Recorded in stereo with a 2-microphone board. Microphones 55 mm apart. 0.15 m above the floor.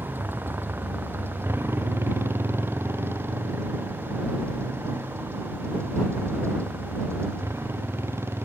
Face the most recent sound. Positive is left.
turn(degrees=-55)  # may be behind; listen again after turning